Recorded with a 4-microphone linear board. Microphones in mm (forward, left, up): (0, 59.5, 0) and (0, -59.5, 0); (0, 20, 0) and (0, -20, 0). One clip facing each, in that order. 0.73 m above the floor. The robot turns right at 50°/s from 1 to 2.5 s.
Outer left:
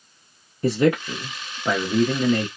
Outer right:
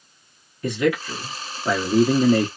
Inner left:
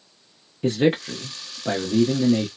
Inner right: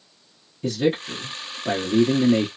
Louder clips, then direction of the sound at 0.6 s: Outer left 2 dB, inner left 2 dB; 140° left.